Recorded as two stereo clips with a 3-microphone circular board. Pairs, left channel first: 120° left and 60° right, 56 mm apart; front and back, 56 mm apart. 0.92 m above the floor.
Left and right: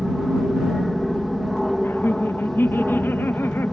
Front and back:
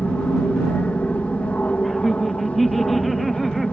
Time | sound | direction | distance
0.0 | an aircraft | 35° left | ?
1.8 | laughter | 90° left | ?